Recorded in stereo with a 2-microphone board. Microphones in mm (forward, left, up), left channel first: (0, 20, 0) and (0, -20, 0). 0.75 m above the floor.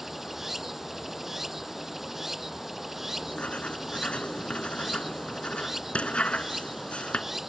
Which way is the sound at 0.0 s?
5° right (ahead or behind).